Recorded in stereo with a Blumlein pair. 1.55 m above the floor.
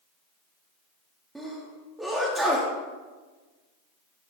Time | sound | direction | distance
1.4 | a sneeze | 5° right | 0.5 m